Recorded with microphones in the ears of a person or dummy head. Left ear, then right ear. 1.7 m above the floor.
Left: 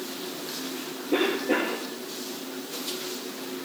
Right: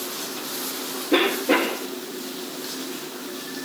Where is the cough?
35° right (ahead or behind), 1.5 m.